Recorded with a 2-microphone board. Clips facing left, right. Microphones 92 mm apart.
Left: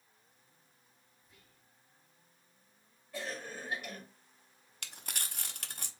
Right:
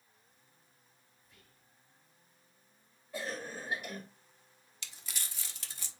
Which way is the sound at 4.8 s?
50° left (ahead or behind).